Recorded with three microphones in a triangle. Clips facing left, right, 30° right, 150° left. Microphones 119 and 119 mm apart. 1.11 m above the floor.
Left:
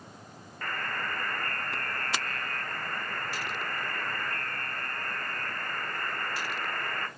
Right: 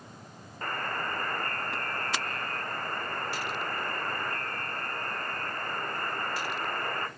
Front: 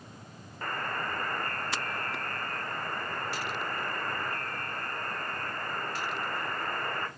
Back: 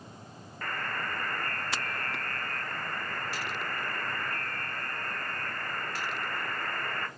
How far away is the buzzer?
About 0.7 m.